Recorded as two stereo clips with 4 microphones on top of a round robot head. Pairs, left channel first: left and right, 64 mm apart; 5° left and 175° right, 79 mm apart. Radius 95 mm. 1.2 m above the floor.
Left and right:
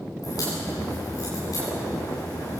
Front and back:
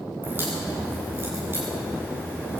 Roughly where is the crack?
Behind left.